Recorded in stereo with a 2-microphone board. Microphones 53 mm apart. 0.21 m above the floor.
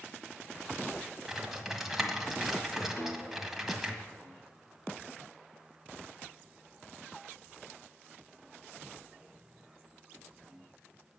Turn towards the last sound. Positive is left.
turn(degrees=35)  # may be behind; listen again after turning